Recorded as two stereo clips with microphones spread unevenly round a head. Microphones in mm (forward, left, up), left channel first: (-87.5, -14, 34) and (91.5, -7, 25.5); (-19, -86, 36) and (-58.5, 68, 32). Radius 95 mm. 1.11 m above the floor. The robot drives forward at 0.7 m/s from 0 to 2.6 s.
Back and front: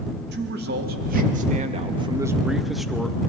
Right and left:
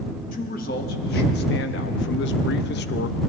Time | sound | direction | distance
0.3 | a man speaking | 30° right | 1.9 m